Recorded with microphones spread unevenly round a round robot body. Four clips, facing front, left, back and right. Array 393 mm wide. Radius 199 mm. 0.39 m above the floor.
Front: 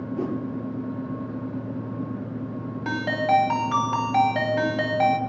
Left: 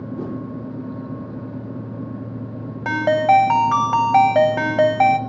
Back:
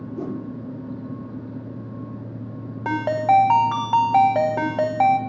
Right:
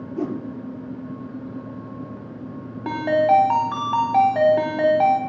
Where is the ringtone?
110° left, 1.1 m.